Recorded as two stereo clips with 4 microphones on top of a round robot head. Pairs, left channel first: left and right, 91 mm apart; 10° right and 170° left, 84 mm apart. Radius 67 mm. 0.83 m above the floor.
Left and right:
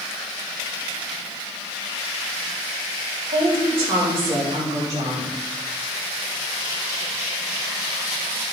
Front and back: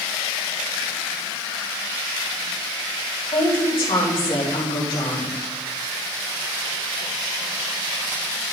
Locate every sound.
3.3 s a woman speaking: 50° right, 3.5 m; by 5.3 s 25° right, 4 m